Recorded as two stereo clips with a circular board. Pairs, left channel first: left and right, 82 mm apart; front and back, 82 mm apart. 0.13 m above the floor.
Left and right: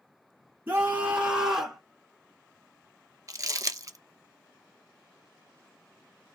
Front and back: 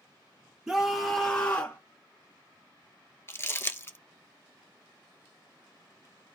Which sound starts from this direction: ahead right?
Crumpling, at 3.3 s.